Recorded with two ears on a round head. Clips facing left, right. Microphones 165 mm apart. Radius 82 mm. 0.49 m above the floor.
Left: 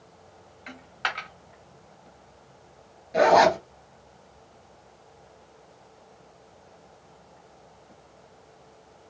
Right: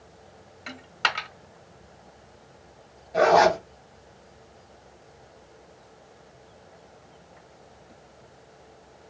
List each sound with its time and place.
0.7 s a dropped coin: 55° right (ahead or behind), 1.1 m
3.1 s a zipper: 25° left (ahead or behind), 1.7 m